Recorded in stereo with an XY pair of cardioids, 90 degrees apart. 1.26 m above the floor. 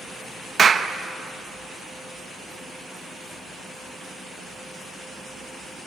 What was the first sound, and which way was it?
A clap, 45° right.